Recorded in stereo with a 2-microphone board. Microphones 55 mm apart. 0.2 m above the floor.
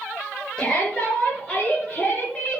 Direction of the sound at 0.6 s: 20° left (ahead or behind).